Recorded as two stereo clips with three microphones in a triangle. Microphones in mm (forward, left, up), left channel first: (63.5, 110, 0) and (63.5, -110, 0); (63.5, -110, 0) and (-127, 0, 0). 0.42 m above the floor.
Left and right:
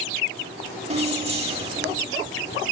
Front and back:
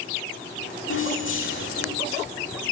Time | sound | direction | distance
0.9 | keys jangling | 30° right | 1.0 m